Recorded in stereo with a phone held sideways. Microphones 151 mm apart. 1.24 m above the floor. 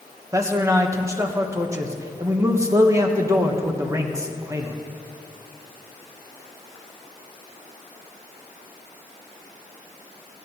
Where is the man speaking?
20° right (ahead or behind), 1.3 m.